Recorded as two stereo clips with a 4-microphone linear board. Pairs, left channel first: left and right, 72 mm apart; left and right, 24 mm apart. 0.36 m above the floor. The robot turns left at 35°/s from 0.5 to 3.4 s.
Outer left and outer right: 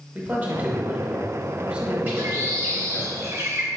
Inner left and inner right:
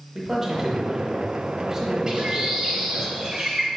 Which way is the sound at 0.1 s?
20° right (ahead or behind).